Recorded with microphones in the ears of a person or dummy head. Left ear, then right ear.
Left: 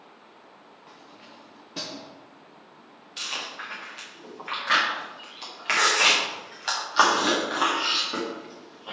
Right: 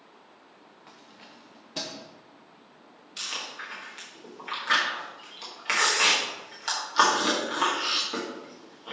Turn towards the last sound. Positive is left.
turn(degrees=5)  # may be behind; listen again after turning